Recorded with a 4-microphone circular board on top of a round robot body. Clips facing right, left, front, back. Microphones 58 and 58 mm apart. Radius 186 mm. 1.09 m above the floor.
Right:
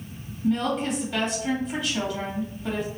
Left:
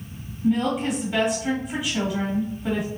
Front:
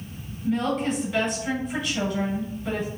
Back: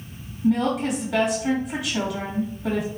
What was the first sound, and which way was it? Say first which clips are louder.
A woman speaking: left 2 dB, back 3 dB; 170° left.